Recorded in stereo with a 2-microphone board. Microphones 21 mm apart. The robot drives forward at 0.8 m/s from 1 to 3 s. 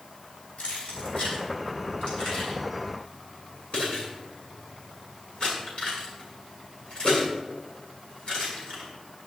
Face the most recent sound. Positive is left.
turn(degrees=45)  # may be behind; listen again after turning